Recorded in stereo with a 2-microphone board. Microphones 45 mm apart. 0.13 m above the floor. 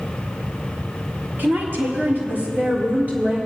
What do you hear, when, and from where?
1.4 s a woman speaking: 50° right (ahead or behind), 2.5 m; by 3.4 s 30° right (ahead or behind), 3.5 m